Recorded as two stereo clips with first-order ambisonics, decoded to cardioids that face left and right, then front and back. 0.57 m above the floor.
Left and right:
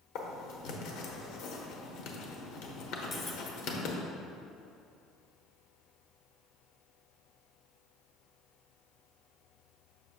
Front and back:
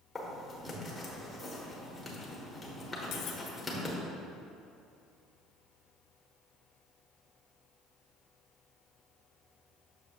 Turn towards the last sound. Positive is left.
turn(degrees=20)